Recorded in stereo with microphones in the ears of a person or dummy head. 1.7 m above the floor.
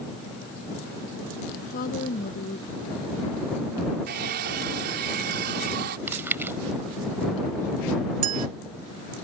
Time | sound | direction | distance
1.6 | a woman speaking | 45° left (ahead or behind) | ?
4.1 | a hair dryer | 60° right (ahead or behind) | ?
6.1 | chewing | 15° right (ahead or behind) | ?
8.2 | a clink | 45° right (ahead or behind) | ?